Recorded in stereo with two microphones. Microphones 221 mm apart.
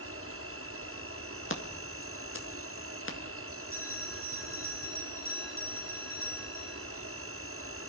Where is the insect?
80° right, 1.6 m.